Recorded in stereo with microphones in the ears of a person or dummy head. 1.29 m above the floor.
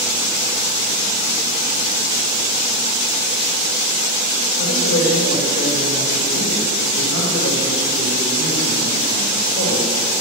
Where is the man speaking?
65° left (ahead or behind), 2.5 m.